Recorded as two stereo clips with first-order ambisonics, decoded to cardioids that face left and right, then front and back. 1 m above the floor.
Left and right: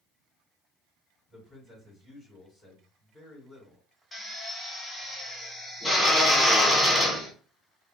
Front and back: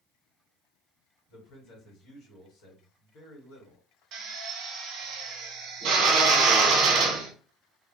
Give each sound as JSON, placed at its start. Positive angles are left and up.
{"t": 1.3, "sound": "a man speaking", "azimuth_deg": 5, "distance_m": 1.5}
{"t": 4.1, "sound": "a drill", "azimuth_deg": 175, "distance_m": 0.8}